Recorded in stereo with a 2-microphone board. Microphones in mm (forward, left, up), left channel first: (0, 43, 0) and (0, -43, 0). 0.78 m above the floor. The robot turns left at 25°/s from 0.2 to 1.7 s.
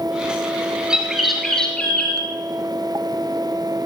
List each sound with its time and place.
0.9 s a bird: 10° right (ahead or behind), 2 m; by 2.2 s 10° left (ahead or behind), 2 m